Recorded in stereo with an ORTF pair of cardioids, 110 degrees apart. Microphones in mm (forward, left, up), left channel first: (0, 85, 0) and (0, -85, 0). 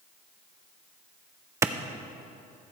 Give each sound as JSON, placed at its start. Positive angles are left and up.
{"t": 1.6, "sound": "a clap", "azimuth_deg": -15, "distance_m": 0.5}